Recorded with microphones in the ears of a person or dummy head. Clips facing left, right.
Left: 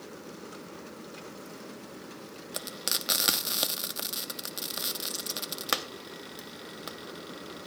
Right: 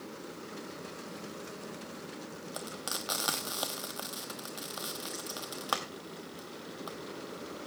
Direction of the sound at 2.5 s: 30° left (ahead or behind).